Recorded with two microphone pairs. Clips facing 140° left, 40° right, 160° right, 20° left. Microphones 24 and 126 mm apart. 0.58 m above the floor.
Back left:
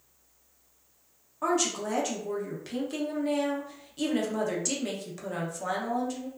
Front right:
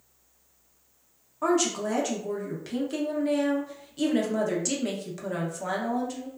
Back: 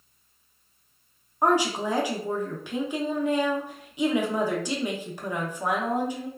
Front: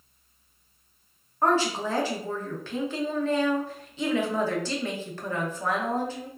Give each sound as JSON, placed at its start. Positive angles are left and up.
{"t": 1.4, "sound": "a woman speaking", "azimuth_deg": -120, "distance_m": 0.6}